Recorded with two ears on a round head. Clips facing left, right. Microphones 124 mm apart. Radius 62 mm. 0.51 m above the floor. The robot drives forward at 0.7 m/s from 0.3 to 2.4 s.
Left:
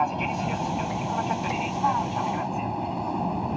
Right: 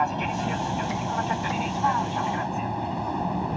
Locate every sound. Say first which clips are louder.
0.0 s an aircraft: even; 5° left (ahead or behind)